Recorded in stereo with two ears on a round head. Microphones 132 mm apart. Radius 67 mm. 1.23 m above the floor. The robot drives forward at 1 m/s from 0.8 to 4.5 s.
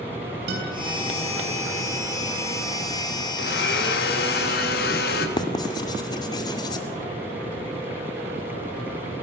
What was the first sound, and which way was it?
A guitar, 85° right.